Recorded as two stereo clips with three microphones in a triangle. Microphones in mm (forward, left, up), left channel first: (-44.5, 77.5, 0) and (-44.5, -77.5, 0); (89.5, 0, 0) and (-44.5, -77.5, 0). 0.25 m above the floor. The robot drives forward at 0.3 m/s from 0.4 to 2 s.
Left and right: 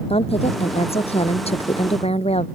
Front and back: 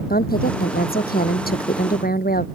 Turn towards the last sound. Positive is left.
turn(degrees=40)